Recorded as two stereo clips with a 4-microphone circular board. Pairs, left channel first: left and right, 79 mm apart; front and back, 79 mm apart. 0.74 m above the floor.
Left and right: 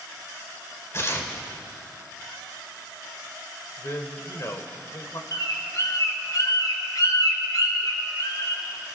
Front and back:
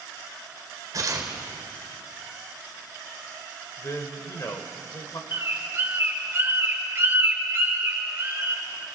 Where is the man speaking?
45° left, 2.5 m.